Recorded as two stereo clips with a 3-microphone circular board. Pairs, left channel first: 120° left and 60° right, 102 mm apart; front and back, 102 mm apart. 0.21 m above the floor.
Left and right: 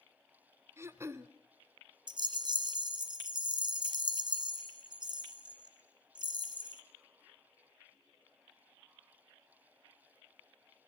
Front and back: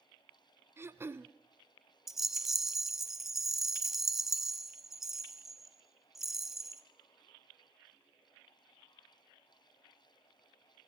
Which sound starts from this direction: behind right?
Throat clearing, at 0.8 s.